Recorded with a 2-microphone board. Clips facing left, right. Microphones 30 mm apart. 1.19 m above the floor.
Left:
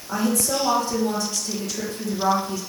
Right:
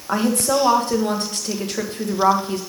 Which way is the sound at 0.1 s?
50° right (ahead or behind).